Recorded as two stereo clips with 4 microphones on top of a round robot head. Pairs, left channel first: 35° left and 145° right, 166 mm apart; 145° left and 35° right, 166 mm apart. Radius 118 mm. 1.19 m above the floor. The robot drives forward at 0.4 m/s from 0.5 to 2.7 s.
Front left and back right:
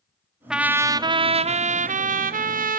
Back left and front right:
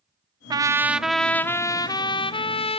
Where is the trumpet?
60° right, 0.5 m; by 2.8 s 165° right, 0.9 m.